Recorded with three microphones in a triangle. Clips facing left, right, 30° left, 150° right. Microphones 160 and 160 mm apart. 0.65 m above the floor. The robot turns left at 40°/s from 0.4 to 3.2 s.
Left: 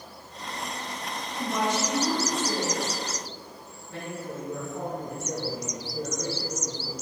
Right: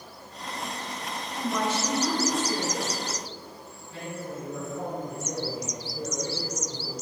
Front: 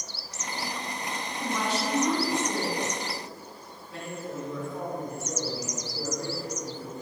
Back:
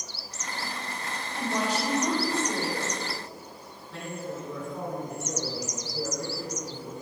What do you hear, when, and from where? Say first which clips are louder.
1.4 s a woman speaking: left 1 dB, back 2 dB; straight behind, 4 m; by 3.0 s 115° left, 4 m
3.9 s a man speaking: left 1 dB, even; 115° left, 5 m